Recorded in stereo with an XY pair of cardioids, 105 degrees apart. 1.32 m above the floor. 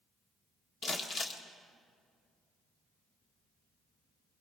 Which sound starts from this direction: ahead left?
Crumpling, at 0.8 s.